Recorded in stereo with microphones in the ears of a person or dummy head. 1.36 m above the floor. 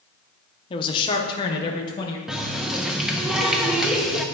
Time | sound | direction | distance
0.7 | a man speaking | 30° left (ahead or behind) | 0.8 m
2.3 | a running tap | 5° right (ahead or behind) | 0.6 m